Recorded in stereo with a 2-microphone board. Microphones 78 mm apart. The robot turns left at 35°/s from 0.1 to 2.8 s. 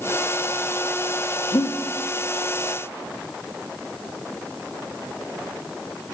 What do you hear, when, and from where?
1.5 s breathing: 70° left (ahead or behind), 0.8 m